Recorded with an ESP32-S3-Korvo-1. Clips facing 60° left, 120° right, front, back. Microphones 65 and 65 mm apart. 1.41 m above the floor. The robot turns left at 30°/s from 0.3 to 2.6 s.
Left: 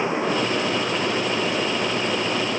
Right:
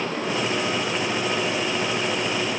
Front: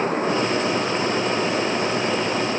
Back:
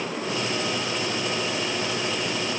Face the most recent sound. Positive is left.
No sound to turn to.